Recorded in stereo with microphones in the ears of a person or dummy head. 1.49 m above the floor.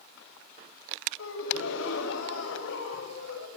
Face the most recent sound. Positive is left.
turn(degrees=85)